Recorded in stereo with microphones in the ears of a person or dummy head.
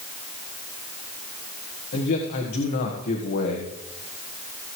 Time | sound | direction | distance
1.9 | a man speaking | 55° left (ahead or behind) | 1.4 m